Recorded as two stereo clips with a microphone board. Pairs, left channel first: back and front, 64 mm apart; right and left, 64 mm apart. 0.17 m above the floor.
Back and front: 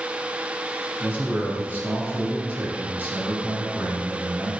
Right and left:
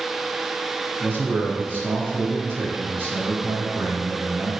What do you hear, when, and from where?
1.0 s a man speaking: 50° left, 1.8 m